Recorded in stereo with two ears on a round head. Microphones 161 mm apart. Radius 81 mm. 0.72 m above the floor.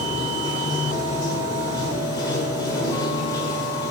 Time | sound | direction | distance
0.0 | running water | 20° left (ahead or behind) | 1.2 m